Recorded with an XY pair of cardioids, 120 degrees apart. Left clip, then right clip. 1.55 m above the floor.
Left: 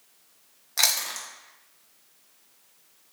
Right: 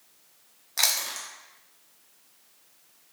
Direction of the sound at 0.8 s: 10° left.